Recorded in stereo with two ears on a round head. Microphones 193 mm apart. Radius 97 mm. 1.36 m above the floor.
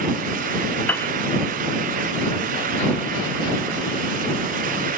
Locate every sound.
0.9 s a piano: 5° left (ahead or behind)